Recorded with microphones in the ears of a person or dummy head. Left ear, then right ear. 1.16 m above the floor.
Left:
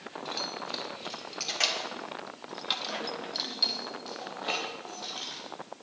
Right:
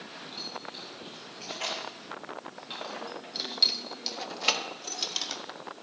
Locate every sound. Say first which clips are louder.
0.2 s keys jangling: left 5 dB; 65° left (ahead or behind), 4 m; by 5.4 s 80° right, 2.5 m